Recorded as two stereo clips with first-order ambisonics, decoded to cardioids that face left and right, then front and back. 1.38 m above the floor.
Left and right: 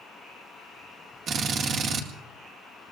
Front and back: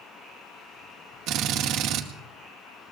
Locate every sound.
1.3 s a drill: 145° right, 1.8 m